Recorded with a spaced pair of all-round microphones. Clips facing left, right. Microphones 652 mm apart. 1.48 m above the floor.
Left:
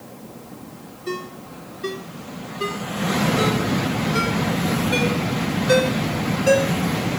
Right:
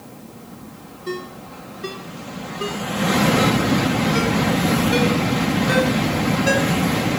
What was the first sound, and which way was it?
A ringtone, centre (ahead or behind).